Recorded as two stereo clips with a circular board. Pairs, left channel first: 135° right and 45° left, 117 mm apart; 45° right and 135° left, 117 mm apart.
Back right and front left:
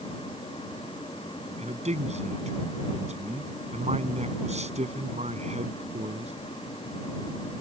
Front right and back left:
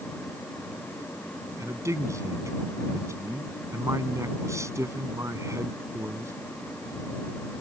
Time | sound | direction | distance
1.6 | a man speaking | 70° left | ?